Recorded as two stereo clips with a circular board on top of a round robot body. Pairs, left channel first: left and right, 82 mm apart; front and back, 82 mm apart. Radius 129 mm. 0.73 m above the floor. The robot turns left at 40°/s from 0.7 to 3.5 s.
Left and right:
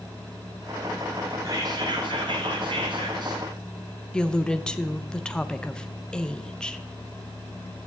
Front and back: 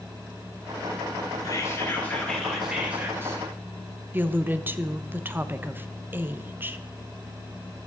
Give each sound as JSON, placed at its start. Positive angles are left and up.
{"t": 1.4, "sound": "whispering", "azimuth_deg": -45, "distance_m": 3.0}
{"t": 4.1, "sound": "a woman speaking", "azimuth_deg": 155, "distance_m": 0.9}